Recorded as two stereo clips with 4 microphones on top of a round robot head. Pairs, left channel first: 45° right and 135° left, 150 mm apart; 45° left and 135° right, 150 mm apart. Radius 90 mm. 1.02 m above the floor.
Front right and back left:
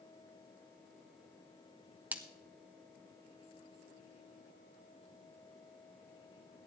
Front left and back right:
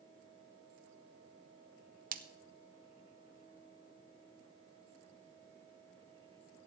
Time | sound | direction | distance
2.1 | a splash | 145° right | 1.1 m